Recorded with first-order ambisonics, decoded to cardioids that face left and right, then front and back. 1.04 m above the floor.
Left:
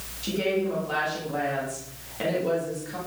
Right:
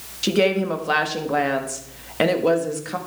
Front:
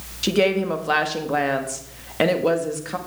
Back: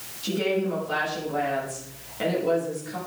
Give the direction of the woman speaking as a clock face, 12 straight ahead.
1 o'clock.